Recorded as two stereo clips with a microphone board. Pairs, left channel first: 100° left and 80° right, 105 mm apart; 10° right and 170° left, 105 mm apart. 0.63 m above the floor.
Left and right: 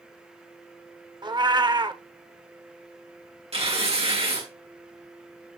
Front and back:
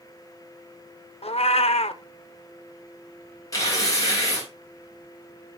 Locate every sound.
1.2 s a cat meowing: 30° right, 0.5 m
3.5 s tearing paper: 65° right, 4 m